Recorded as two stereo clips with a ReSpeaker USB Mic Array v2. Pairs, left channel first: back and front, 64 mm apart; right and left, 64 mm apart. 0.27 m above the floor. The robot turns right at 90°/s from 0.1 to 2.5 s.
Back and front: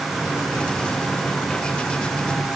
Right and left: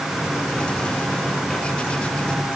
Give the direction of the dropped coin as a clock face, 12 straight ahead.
I don't hear a dropped coin.